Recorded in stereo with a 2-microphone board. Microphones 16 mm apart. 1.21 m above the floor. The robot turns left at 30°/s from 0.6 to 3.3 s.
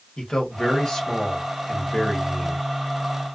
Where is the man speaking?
90° left, 1.2 m; by 2.6 s 30° left, 1.2 m.